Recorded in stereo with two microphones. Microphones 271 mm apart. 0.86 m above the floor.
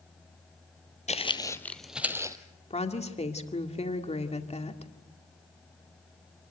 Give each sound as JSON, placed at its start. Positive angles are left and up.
{"t": 1.1, "sound": "footsteps", "side_deg": 25, "distance_m": 1.1}
{"t": 2.7, "sound": "a woman speaking", "side_deg": 20, "distance_m": 2.0}